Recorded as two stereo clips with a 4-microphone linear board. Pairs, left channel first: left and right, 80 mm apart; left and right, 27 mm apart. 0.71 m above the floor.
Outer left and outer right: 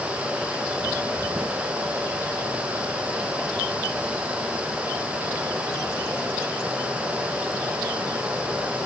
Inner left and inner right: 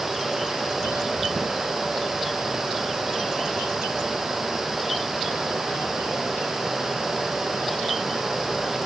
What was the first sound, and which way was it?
Only background noise.